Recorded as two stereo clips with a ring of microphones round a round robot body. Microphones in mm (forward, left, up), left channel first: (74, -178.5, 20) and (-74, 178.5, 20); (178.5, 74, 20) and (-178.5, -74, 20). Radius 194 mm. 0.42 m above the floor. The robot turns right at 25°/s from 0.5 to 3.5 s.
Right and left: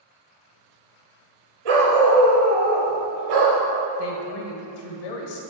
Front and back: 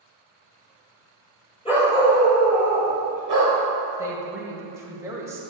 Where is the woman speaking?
75° right, 1.7 m.